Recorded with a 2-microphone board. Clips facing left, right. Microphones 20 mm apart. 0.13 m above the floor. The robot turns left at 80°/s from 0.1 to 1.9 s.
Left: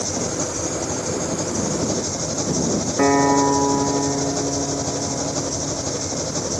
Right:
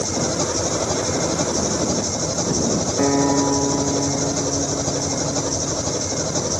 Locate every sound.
0.0 s an engine running: 25° right; by 6.6 s 165° right
3.0 s a guitar: 35° left (ahead or behind)